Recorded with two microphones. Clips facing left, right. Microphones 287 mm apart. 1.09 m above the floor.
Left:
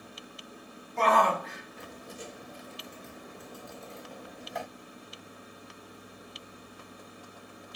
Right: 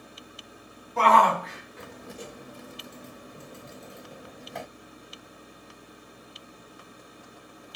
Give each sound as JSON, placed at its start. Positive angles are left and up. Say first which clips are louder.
{"t": 1.0, "sound": "a shout", "louder": "right 3 dB", "side_deg": -85, "distance_m": 1.5}